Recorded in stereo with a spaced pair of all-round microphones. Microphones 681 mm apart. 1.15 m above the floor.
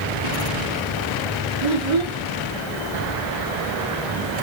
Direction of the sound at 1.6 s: 55° right (ahead or behind).